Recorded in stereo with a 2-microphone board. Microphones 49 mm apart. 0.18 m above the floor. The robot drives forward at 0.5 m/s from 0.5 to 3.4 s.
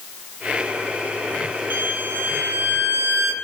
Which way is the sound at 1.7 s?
45° right (ahead or behind).